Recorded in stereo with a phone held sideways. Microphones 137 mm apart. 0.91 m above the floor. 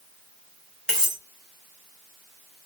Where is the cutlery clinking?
5° left (ahead or behind), 0.8 m.